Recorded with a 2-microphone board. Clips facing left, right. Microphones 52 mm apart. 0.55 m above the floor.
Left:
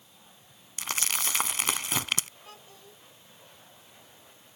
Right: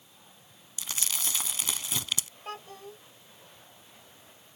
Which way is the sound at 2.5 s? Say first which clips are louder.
Right 9 dB; 60° right (ahead or behind).